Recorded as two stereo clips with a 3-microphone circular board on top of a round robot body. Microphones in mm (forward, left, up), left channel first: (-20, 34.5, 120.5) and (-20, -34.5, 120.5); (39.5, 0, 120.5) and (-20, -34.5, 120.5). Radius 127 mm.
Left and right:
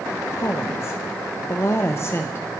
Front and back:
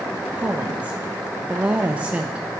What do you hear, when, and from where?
0.3 s a woman speaking: 140° left, 1.0 m